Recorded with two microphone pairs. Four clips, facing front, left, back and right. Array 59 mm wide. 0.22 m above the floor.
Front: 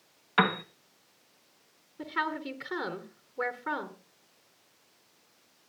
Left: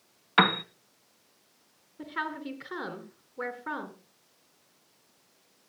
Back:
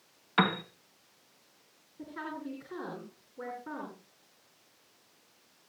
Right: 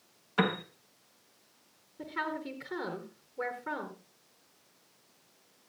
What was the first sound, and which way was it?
A piano, 70° left.